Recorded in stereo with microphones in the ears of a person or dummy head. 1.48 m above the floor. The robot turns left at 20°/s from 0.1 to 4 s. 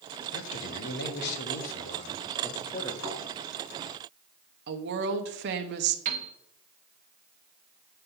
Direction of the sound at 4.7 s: 60° right (ahead or behind).